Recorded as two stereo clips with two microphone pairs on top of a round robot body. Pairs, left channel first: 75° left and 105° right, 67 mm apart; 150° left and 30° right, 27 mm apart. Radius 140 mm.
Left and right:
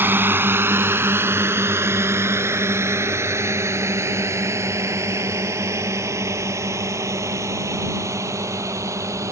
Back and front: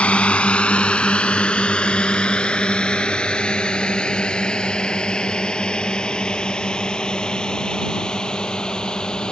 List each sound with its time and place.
0.0 s a drone: 165° right; by 9.3 s 150° right